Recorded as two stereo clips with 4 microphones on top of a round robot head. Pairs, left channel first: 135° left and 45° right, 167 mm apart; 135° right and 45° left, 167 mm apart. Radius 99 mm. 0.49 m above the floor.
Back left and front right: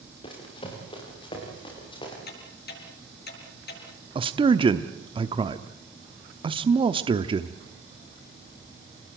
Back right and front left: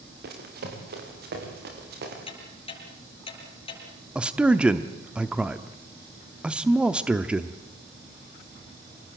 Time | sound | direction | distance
0.2 | running footsteps | 75° left | 6.5 m
2.3 | ticking | 165° left | 7 m
4.2 | a man speaking | 35° right | 0.9 m